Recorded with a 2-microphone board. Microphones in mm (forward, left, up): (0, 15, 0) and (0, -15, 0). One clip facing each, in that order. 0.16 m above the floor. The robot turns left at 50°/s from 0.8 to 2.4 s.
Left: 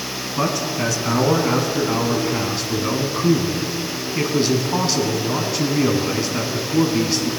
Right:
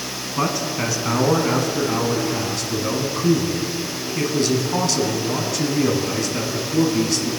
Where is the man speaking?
10° right (ahead or behind), 1.1 m; by 7.3 s 15° left (ahead or behind), 1.1 m.